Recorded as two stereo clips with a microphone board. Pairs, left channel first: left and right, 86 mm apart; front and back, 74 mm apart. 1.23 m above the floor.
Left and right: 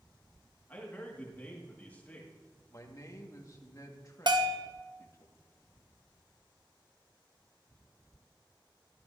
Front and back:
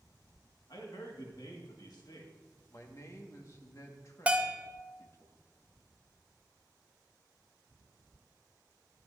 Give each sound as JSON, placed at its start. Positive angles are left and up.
{"t": 0.7, "sound": "a man speaking", "azimuth_deg": 20, "distance_m": 1.9}
{"t": 2.7, "sound": "a man speaking", "azimuth_deg": 40, "distance_m": 1.6}
{"t": 4.3, "sound": "a bell", "azimuth_deg": -110, "distance_m": 0.9}